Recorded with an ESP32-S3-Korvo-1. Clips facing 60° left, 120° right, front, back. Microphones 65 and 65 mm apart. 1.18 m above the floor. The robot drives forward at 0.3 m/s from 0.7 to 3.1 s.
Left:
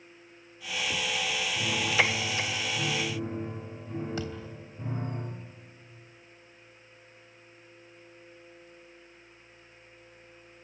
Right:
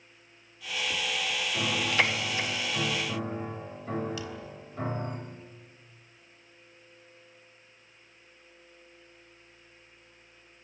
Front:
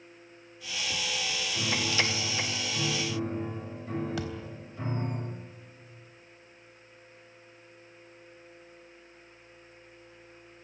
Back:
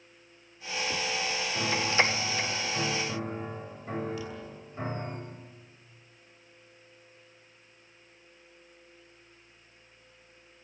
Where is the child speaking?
No child speaking in this recording.